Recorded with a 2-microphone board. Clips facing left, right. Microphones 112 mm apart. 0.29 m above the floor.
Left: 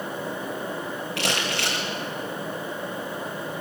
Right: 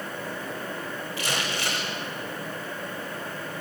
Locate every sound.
1.2 s crumpling: 80° left, 8 m